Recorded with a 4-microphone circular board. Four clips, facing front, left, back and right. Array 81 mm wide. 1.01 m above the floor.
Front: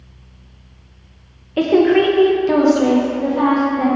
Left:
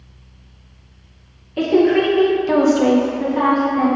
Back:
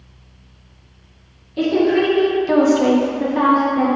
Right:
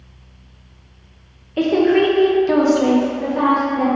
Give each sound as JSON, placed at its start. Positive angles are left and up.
{"t": 1.6, "sound": "a woman speaking", "azimuth_deg": -10, "distance_m": 0.7}